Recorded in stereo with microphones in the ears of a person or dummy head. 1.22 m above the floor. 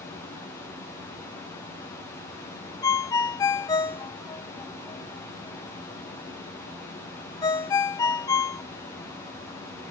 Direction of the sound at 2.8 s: 15° left (ahead or behind).